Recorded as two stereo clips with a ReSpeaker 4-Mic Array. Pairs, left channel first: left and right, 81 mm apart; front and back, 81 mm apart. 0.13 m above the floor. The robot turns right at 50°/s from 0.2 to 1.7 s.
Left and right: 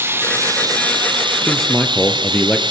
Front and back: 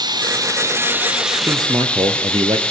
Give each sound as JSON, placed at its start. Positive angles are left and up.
{"t": 0.0, "sound": "running water", "azimuth_deg": -150, "distance_m": 1.9}
{"t": 1.5, "sound": "a man speaking", "azimuth_deg": 165, "distance_m": 2.5}